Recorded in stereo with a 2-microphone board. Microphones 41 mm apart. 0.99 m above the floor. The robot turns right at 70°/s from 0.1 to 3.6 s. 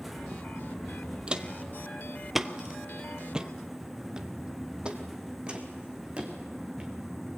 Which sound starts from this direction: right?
Footsteps, at 1.3 s.